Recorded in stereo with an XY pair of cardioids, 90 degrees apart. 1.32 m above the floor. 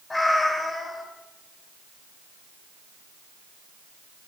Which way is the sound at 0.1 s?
30° left.